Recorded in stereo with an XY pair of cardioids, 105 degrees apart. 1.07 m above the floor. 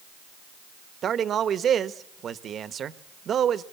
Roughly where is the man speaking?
Ahead right.